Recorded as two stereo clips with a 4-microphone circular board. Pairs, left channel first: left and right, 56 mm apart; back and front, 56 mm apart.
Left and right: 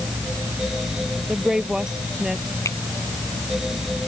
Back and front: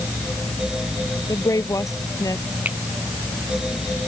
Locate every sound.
1.3 s a woman speaking: 170° right
2.6 s a finger snap: 60° left